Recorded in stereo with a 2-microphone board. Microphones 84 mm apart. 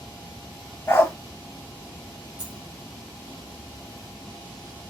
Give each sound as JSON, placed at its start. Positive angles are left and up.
{"t": 0.9, "sound": "a dog barking", "side_deg": 30, "distance_m": 0.8}
{"t": 2.4, "sound": "a dropped coin", "side_deg": -50, "distance_m": 0.8}